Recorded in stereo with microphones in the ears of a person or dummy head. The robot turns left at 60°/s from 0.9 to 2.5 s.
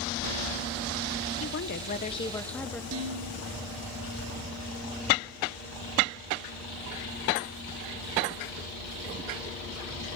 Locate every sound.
1.4 s a woman speaking: 75° left, 1.3 m; by 2.8 s 5° left, 1.3 m
2.9 s dishes clattering: 75° right (ahead or behind), 3.5 m